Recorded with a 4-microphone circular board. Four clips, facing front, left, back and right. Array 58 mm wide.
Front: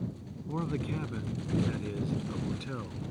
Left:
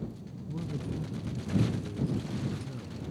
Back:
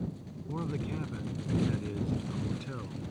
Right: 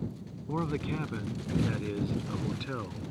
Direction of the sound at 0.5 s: 80° right.